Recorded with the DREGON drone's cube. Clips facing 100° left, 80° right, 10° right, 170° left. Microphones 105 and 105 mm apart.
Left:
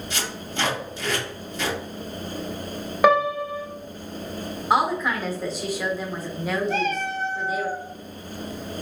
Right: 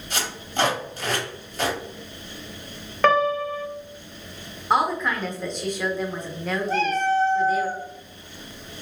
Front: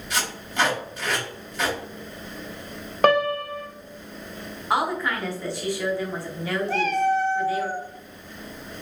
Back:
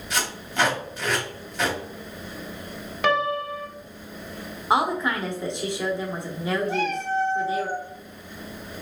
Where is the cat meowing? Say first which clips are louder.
Right 4 dB, front 4 dB; 25° right, 1.1 m.